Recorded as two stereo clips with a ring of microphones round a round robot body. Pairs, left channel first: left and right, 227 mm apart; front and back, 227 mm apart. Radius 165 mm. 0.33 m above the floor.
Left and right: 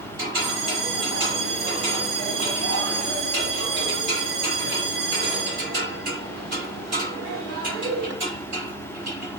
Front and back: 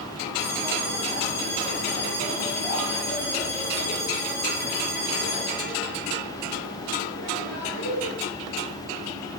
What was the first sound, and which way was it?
A bell, 65° right.